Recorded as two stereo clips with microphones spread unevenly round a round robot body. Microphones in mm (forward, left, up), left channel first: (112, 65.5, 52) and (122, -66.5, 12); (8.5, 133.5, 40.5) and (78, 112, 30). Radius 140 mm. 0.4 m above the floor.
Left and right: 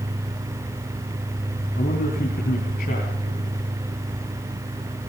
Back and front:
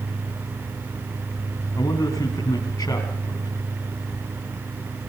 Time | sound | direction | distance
1.8 | a man speaking | 125° left | 4 m